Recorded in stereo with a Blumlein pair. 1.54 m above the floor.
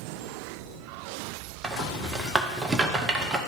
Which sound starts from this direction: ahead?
A rattle, at 1.6 s.